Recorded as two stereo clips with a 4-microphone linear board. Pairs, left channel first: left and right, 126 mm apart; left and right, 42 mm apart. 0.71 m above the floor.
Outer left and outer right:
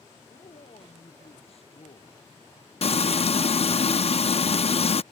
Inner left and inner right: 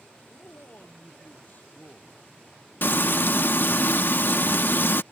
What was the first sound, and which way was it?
A man speaking, 50° left (ahead or behind).